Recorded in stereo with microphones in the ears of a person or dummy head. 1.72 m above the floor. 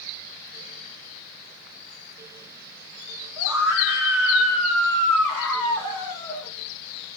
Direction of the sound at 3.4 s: 10° right (ahead or behind).